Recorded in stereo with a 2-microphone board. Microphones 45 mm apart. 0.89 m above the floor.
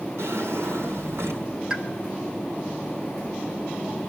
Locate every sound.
0.2 s a drawer: 70° right (ahead or behind), 4.5 m
1.7 s a pop: 15° right (ahead or behind), 2.5 m